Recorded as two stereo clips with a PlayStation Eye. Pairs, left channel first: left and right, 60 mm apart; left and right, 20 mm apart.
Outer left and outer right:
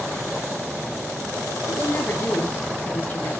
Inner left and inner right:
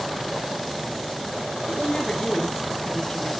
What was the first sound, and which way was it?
A woman speaking, 35° left (ahead or behind).